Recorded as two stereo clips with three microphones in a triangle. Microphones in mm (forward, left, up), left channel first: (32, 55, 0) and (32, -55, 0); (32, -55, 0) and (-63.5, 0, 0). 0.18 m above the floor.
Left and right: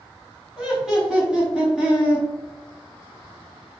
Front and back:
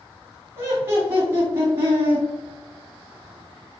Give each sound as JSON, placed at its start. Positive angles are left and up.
{"t": 0.6, "sound": "laughter", "azimuth_deg": -170, "distance_m": 1.2}